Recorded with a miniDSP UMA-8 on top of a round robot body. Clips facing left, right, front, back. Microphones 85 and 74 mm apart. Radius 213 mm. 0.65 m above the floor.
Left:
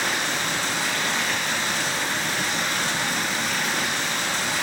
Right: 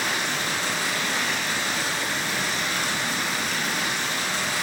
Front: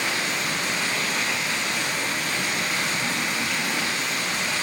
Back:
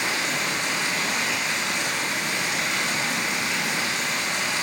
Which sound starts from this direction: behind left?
Running water, at 0.0 s.